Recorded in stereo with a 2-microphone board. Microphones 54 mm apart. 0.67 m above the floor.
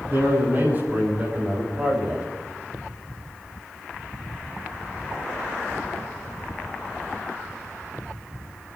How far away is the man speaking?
About 6 m.